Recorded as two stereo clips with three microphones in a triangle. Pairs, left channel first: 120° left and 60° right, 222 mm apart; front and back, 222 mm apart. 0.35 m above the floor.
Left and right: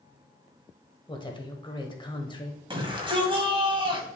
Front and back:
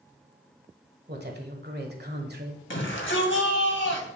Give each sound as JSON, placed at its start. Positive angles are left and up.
{"t": 1.1, "sound": "a woman speaking", "azimuth_deg": 180, "distance_m": 1.4}
{"t": 2.7, "sound": "a shout", "azimuth_deg": 5, "distance_m": 2.0}